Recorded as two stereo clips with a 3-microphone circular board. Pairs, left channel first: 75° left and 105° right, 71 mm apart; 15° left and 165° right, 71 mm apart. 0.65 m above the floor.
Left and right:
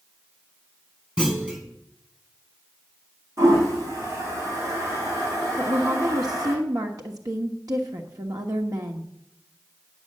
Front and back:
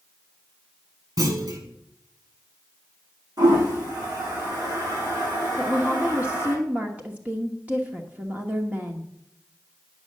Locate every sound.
1.2 s a clunk: straight behind, 4.5 m
3.4 s a toilet flushing: 145° right, 7.5 m
5.6 s a woman speaking: 100° right, 1.1 m